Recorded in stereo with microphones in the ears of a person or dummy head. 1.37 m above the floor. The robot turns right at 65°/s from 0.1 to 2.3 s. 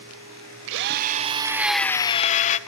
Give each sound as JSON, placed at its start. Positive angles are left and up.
{"t": 0.7, "sound": "a drill", "azimuth_deg": -70, "distance_m": 0.7}